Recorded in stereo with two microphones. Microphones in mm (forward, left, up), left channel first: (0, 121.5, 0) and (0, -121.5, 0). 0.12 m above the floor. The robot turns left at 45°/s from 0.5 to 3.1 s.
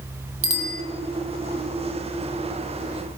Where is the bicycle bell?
60° right (ahead or behind), 2.5 m; by 0.8 s 50° right (ahead or behind), 2.5 m.